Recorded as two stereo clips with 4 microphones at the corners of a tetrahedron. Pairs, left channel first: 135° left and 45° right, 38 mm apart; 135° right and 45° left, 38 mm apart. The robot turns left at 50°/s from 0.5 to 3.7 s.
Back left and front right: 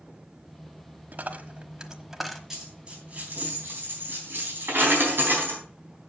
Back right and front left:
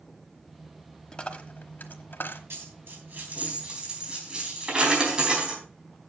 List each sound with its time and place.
1.1 s a dropped coin: 70° right, 1.1 m; by 2.4 s 135° right, 1.1 m
2.5 s a dropped coin: 35° left, 3.5 m; by 5.6 s 25° right, 3.5 m